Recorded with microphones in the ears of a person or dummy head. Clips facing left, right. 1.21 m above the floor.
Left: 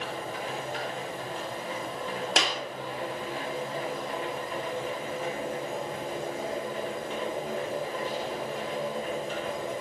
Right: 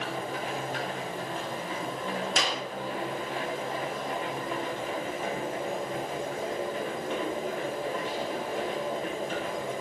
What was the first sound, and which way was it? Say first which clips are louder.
A machine running: right 1 dB; 50° right (ahead or behind).